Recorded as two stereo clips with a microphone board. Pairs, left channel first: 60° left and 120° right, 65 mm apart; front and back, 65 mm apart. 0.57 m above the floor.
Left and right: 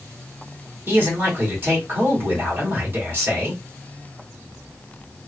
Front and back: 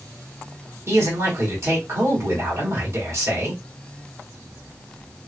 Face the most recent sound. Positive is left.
turn(degrees=-165)